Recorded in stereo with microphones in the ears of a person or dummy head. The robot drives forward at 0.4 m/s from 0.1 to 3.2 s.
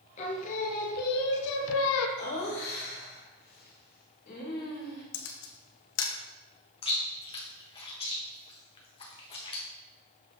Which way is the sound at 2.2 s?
60° left (ahead or behind).